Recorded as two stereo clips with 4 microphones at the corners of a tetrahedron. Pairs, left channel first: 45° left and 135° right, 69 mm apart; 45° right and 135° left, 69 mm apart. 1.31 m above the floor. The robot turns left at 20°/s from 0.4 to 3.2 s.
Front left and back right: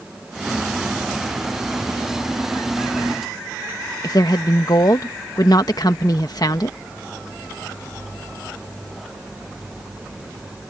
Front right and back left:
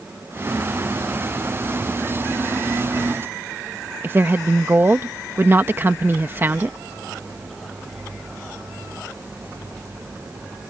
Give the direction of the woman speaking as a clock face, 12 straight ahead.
9 o'clock.